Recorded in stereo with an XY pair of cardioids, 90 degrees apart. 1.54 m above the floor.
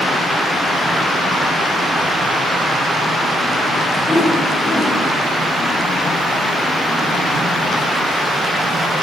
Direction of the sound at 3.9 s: 30° left.